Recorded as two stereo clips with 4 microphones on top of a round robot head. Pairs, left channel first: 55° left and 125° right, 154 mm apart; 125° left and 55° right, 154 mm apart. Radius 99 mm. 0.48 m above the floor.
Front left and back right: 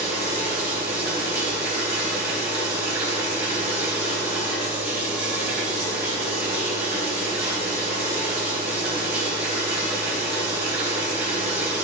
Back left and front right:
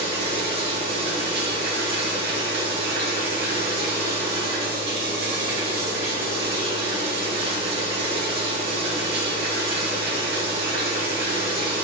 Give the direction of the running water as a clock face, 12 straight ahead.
1 o'clock.